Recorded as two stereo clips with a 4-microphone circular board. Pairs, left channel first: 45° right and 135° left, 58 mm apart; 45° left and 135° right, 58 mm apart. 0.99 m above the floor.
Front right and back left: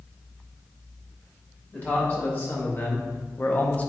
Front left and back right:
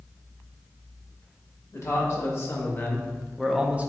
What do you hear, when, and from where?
1.7 s a man speaking: 10° left, 1.2 m; by 3.9 s 100° right, 0.5 m